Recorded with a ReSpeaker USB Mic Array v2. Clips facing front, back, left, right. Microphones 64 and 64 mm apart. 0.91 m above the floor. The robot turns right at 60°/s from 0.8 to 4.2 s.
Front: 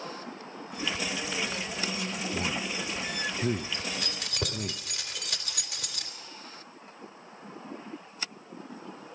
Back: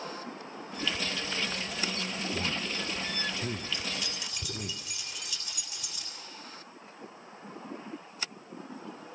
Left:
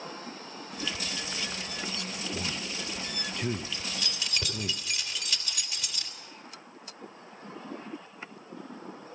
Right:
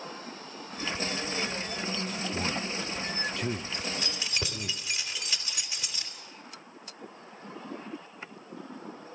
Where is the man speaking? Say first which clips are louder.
Front 2 dB, right 4 dB; 70° right, 0.6 m; by 4.7 s 45° left, 0.6 m.